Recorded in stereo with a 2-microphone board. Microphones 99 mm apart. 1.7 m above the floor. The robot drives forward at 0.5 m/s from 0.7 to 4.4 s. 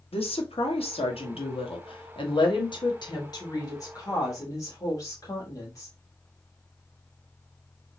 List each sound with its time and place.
0.1 s a woman speaking: 80° left, 1.3 m; by 6.0 s 35° left (ahead or behind), 2 m